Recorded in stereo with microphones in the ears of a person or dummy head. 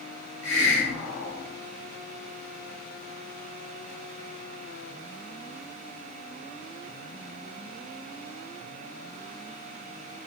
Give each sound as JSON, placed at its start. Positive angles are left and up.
{"t": 0.4, "sound": "a hiss", "side_deg": 65, "distance_m": 1.4}